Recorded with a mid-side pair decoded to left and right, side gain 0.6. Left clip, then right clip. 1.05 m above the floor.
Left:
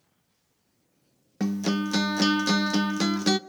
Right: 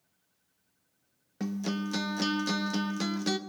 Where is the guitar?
35° left, 0.8 m.